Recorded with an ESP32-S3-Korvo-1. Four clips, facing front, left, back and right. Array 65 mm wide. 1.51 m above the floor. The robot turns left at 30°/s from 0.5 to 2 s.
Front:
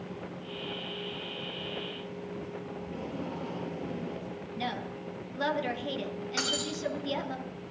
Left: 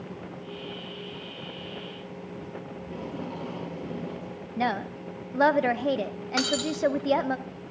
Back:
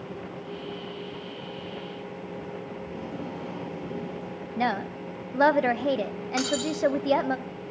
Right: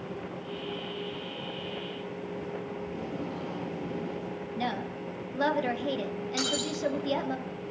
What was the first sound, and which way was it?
Tape being pulled, 95° left.